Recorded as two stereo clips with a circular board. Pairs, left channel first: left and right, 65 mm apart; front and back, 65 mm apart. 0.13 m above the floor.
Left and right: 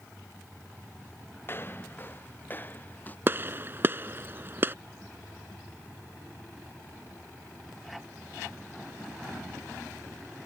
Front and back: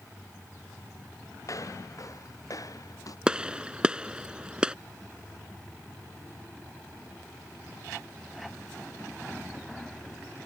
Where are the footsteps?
35° left; by 3.2 s 25° left.